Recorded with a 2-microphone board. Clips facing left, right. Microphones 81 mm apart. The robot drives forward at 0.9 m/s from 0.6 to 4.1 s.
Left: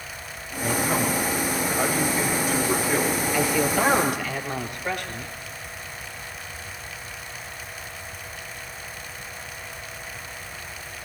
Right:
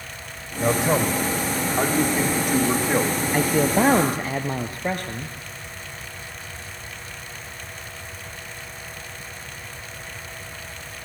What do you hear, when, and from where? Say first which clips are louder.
0.6 s a man speaking: right 4 dB; 60° right (ahead or behind), 5.5 m; by 3.2 s 45° right (ahead or behind), 7 m
3.3 s a man speaking: right 4 dB; 45° right (ahead or behind), 2.5 m; by 5.3 s 35° right (ahead or behind), 2.5 m